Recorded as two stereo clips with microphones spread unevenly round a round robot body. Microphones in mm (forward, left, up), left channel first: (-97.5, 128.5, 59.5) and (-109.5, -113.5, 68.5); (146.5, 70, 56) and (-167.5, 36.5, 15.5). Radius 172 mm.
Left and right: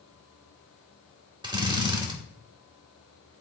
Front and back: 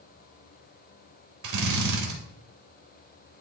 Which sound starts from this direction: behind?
A drill, at 1.4 s.